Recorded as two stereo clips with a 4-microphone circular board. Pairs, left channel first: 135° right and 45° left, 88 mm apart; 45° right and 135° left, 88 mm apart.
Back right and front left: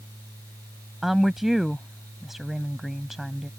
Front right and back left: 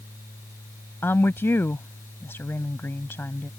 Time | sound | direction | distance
1.0 | a woman speaking | 40° right | ?